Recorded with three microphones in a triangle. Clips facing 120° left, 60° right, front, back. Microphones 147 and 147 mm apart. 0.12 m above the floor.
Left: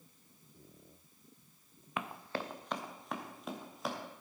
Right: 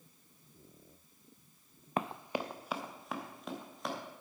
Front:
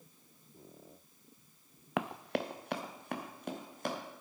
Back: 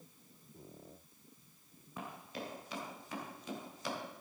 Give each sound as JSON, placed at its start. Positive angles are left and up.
{"t": 2.0, "sound": "running footsteps", "azimuth_deg": -5, "distance_m": 0.6}